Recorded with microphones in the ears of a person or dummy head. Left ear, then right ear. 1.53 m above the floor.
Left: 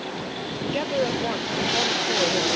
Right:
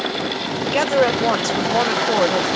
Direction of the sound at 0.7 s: 50° right (ahead or behind).